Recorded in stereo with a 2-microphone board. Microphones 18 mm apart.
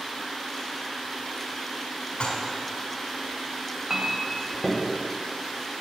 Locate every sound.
2.2 s dishes clattering: 55° left (ahead or behind), 1.5 m
3.9 s a clink: 30° right (ahead or behind), 1.0 m